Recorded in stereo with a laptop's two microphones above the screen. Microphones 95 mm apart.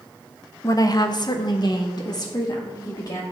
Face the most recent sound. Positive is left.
turn(degrees=40)  # may be behind; listen again after turning